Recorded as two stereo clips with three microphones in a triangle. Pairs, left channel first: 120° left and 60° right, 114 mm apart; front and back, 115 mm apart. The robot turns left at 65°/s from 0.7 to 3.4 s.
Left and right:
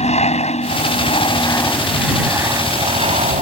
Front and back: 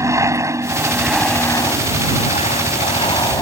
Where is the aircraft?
120° left; by 3.4 s 55° right.